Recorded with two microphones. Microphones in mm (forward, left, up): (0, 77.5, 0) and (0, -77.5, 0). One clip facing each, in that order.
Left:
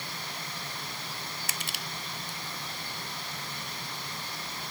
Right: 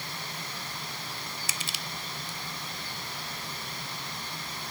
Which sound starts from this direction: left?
Crushing, at 1.5 s.